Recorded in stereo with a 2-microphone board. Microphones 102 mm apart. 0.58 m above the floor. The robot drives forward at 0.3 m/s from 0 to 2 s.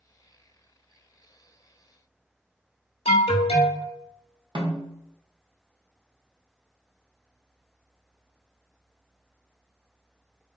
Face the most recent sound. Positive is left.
turn(degrees=-45)  # may be behind; listen again after turning